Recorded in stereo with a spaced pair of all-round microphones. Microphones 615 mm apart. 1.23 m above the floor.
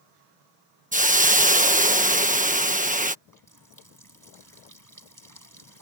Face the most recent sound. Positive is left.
turn(degrees=-30)  # may be behind; listen again after turning